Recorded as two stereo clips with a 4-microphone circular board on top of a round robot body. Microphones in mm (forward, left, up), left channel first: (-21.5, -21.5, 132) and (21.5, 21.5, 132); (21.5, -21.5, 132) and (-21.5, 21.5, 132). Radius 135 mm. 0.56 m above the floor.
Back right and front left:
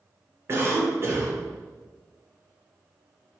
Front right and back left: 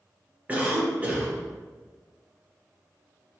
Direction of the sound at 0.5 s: 80° left.